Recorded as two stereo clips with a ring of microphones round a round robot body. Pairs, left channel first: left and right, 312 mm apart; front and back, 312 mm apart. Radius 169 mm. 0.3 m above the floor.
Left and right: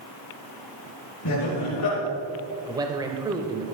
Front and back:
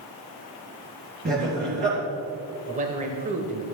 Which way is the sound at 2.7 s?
150° right.